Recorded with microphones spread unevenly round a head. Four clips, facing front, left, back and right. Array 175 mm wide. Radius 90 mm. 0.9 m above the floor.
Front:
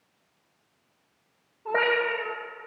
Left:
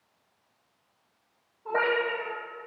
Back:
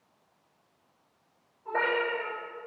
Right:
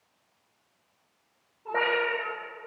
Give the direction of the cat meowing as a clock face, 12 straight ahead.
12 o'clock.